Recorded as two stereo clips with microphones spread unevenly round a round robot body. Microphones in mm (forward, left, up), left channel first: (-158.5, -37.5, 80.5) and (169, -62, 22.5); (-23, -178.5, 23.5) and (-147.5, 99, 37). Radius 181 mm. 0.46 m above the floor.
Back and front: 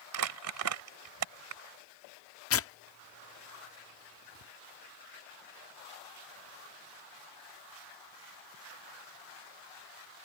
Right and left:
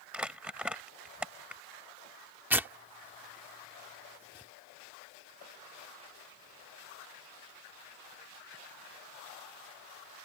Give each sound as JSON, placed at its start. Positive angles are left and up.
{"t": 0.1, "sound": "crumpling", "azimuth_deg": 25}
{"t": 2.5, "sound": "tearing paper", "azimuth_deg": -165}